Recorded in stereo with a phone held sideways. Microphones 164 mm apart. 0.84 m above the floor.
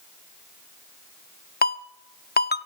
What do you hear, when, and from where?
1.6 s a ringtone: 65° left (ahead or behind), 0.6 m